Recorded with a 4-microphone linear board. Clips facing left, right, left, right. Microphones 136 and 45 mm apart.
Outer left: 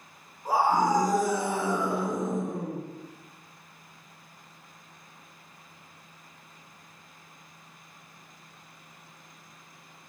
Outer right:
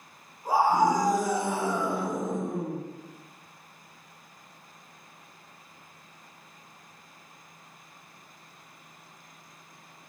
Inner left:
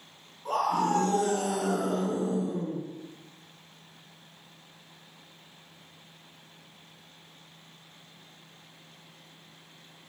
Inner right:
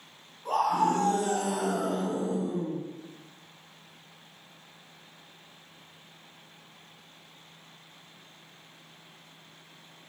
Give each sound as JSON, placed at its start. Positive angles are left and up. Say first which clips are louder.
{"t": 0.5, "sound": "a scream", "louder": "outer right 1 dB, inner right 1 dB", "side_deg": 0, "distance_m": 1.4}